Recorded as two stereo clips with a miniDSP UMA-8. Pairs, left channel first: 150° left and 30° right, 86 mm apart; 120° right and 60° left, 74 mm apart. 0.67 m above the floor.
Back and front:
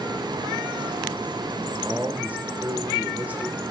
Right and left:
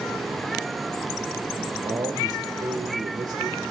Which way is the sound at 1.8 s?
40° left.